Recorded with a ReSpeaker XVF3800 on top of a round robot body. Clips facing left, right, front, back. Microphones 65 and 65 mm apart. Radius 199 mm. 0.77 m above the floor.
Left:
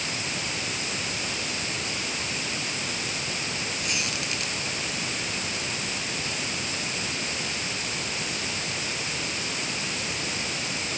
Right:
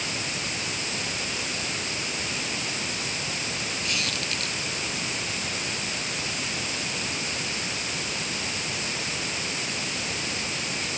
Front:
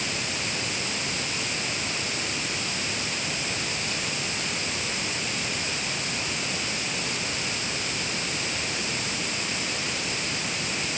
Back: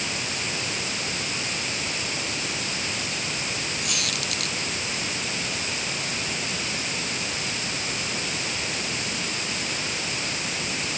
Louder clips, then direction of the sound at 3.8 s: Right 1 dB, back 1 dB; 165° left.